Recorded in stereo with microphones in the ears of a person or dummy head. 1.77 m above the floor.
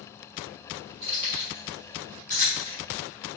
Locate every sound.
1.0 s keys jangling: 25° right (ahead or behind), 1.1 m; by 2.8 s 15° left (ahead or behind), 1.5 m